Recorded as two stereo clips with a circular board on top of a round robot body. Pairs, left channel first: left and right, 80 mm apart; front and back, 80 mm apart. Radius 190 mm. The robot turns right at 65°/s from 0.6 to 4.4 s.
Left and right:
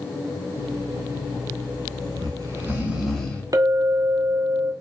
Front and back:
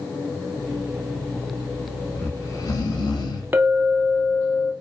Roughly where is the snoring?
Right.